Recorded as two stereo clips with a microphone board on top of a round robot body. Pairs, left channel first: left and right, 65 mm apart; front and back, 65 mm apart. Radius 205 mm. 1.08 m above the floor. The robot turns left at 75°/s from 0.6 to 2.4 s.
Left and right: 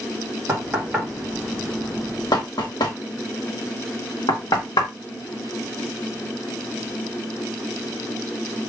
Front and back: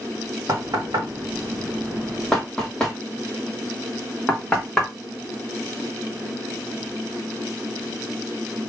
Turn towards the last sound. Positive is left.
turn(degrees=80)